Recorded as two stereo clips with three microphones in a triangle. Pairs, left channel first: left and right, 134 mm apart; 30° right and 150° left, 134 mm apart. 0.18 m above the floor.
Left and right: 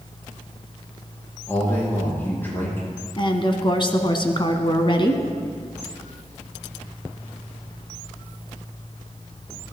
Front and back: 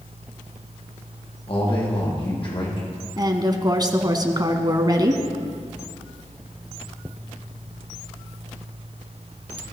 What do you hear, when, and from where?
1.5 s a man speaking: 15° left, 6.5 m
3.2 s a woman speaking: 110° left, 1.5 m